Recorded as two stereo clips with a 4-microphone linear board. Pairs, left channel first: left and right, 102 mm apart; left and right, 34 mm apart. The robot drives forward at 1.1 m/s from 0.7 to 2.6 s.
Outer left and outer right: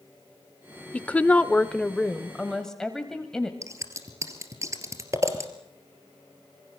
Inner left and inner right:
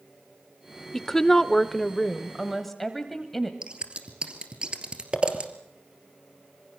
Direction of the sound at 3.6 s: 30° right (ahead or behind).